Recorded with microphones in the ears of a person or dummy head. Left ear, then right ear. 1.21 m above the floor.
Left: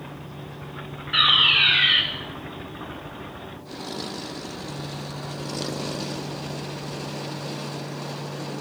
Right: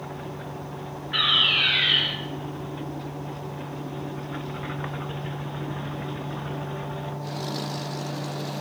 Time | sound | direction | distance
1.1 | a fire alarm | 30° left (ahead or behind) | 9 m